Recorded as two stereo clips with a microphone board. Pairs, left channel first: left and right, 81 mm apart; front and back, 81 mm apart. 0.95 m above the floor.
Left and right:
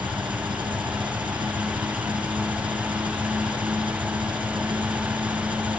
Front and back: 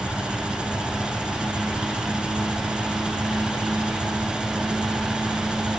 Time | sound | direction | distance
0.0 | an engine running | 100° right | ?